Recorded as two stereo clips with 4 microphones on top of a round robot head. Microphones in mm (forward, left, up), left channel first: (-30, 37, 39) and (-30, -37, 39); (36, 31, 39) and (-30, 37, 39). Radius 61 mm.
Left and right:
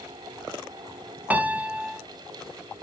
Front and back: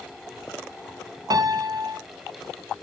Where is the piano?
160° right, 0.8 m.